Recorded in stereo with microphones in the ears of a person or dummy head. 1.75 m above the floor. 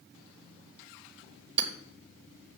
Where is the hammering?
40° right (ahead or behind), 1.5 m.